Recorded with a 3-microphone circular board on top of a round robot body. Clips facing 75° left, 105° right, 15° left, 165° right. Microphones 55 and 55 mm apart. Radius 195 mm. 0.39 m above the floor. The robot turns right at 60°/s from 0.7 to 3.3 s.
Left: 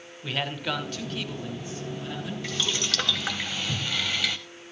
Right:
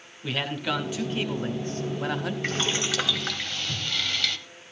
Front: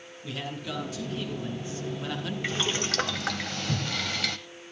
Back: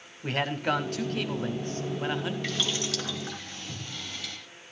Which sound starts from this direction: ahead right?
Boiling, at 2.4 s.